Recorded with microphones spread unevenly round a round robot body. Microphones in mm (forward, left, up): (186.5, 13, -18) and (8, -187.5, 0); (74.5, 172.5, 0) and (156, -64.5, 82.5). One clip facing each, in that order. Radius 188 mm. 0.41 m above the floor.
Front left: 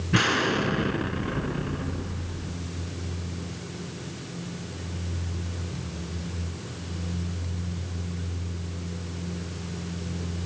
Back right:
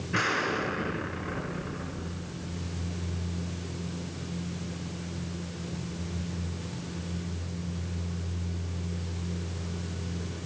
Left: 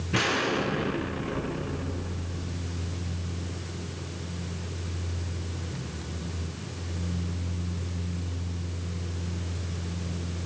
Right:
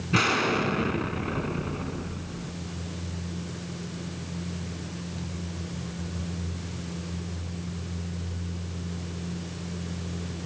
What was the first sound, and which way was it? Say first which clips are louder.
An explosion: front left 7 dB, right 1 dB; 5° left.